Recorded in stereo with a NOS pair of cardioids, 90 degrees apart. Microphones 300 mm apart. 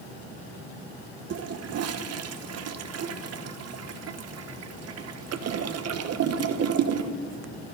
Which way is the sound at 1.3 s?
55° right.